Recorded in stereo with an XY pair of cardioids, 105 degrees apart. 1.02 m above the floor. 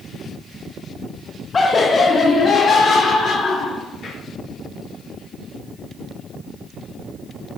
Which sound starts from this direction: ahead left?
Laughter, at 1.5 s.